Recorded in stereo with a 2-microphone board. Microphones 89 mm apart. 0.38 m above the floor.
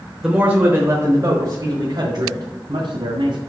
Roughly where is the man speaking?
Centre.